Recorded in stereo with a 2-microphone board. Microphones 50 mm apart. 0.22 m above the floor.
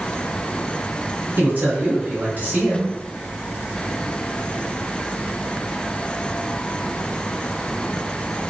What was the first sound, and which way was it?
A man speaking, 40° right (ahead or behind).